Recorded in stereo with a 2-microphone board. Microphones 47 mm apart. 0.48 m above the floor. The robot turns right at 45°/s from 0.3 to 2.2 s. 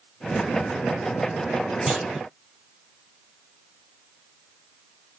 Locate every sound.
1.9 s a clunk: 15° right (ahead or behind), 1.8 m; by 2.2 s centre (ahead or behind), 1.8 m